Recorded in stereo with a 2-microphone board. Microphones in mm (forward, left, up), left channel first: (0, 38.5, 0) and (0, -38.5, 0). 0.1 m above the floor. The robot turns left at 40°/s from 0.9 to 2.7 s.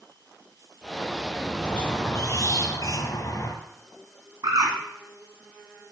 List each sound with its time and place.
1.6 s a squeak: 160° left, 1.5 m; by 3.5 s 115° left, 1.5 m
4.4 s a bird: 70° right (ahead or behind), 2.5 m